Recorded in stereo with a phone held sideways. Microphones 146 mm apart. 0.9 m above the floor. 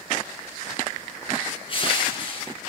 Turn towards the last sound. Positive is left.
turn(degrees=35)  # may be behind; listen again after turning